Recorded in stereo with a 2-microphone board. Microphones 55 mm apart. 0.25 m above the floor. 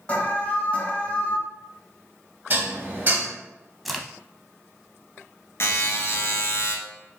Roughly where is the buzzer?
Left.